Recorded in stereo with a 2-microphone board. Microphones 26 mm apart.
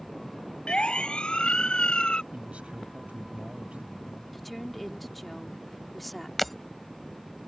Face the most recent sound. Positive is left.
turn(degrees=0)  # may be behind; listen again after turning